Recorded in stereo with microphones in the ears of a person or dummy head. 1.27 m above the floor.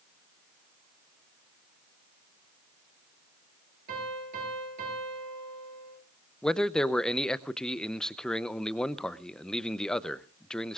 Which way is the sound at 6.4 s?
5° left (ahead or behind).